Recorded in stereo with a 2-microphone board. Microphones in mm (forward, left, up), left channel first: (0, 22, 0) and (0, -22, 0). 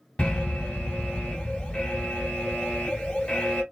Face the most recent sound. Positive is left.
turn(degrees=25)  # may be behind; listen again after turning